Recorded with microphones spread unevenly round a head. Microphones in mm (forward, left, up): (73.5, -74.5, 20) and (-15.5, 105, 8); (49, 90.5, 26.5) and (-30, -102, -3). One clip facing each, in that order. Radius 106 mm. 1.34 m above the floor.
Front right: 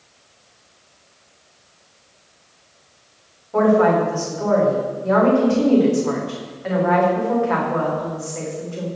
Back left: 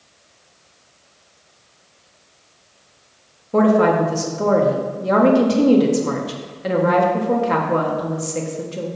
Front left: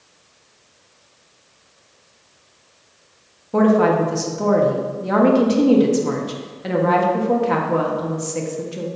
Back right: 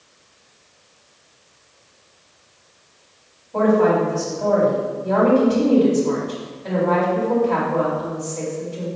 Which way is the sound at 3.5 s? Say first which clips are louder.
Back left 1 dB, front left 1 dB; 75° left.